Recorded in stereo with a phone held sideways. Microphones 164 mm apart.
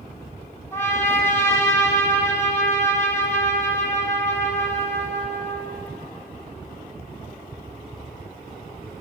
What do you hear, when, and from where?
0.7 s a trumpet: 15° left (ahead or behind), 7.5 m